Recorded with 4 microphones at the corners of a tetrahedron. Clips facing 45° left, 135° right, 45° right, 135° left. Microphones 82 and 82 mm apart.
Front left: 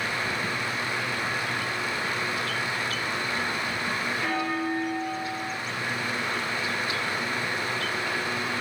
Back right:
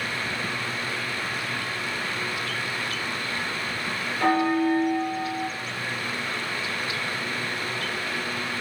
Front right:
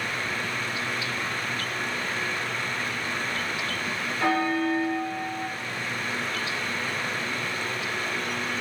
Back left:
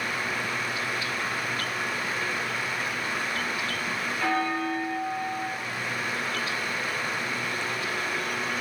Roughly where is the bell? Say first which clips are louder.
Back right 10 dB, front right 3 dB; right.